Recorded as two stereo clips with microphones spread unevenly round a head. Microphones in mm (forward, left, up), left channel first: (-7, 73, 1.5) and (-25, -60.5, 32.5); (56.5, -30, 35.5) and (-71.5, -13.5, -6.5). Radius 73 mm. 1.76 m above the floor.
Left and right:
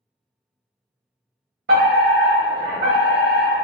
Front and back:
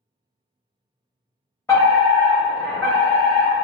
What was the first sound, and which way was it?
A fire alarm, 85° right.